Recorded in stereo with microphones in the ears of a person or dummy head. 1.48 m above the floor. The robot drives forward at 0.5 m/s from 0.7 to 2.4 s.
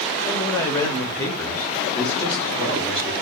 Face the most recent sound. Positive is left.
turn(degrees=10)  # may be behind; listen again after turning